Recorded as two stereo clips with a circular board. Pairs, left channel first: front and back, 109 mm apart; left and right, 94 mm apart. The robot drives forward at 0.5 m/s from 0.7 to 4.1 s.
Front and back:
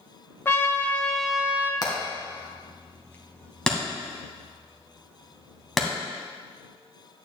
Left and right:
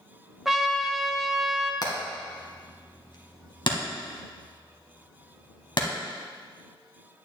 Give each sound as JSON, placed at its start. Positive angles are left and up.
{"t": 0.5, "sound": "a trumpet", "azimuth_deg": -5, "distance_m": 0.7}
{"t": 1.8, "sound": "hammering", "azimuth_deg": 50, "distance_m": 1.8}